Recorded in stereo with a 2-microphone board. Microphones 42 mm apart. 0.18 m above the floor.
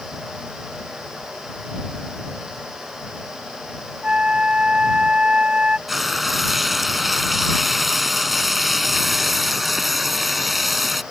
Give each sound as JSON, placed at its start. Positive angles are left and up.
{"t": 4.0, "sound": "a flute", "side_deg": -25}
{"t": 5.9, "sound": "frying", "side_deg": -5}